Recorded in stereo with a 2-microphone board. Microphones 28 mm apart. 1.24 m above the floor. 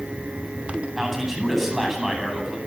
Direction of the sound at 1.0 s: 15° right (ahead or behind).